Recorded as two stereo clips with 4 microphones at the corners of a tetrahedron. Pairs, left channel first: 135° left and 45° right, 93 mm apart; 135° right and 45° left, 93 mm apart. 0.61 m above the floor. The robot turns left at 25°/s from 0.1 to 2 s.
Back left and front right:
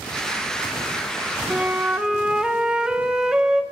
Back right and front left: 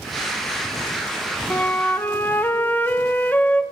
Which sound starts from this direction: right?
A flute, at 1.5 s.